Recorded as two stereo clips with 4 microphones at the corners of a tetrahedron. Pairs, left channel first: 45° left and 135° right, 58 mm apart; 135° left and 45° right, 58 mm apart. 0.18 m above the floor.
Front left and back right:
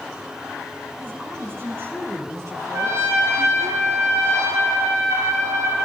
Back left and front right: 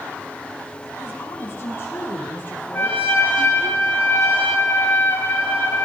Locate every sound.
1.0 s a woman speaking: straight behind, 7 m; by 3.7 s 160° right, 4 m
2.7 s a trumpet: 170° right, 9 m